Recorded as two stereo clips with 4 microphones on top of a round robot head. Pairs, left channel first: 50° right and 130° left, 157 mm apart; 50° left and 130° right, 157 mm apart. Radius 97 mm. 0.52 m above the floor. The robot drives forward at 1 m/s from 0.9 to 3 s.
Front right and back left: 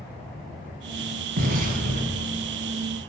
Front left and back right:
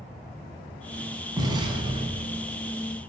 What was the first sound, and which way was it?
An explosion, 160° left.